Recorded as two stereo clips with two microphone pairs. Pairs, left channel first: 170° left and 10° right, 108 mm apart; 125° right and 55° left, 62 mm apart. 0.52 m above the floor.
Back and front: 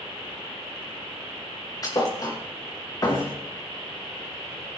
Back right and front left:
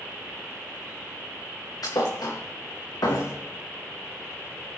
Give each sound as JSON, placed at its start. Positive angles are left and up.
{"t": 1.8, "sound": "a thud", "azimuth_deg": -135, "distance_m": 3.0}